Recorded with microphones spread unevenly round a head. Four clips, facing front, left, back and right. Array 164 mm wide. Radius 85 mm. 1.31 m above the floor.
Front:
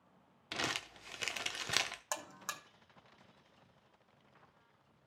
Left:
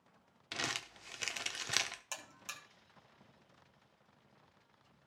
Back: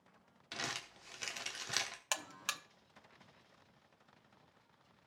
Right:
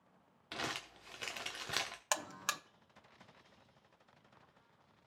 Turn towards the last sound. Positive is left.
turn(degrees=-90)